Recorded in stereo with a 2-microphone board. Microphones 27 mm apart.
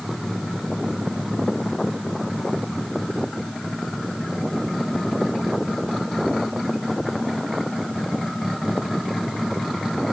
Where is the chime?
I don't hear a chime.